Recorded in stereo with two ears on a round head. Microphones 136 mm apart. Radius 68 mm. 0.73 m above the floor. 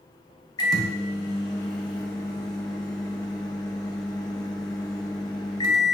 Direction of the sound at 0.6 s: 25° left (ahead or behind).